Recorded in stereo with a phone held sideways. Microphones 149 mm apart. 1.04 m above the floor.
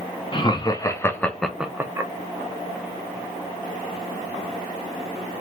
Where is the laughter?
35° left (ahead or behind), 0.9 m; by 2.1 s 25° right (ahead or behind), 0.7 m.